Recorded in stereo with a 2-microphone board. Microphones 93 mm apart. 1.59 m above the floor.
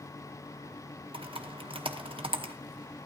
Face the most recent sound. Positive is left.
turn(degrees=-80)